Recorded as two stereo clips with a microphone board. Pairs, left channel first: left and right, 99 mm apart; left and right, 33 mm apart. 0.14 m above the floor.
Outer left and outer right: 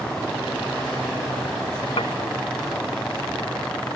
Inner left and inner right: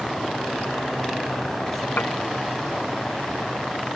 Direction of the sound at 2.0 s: 65° left (ahead or behind).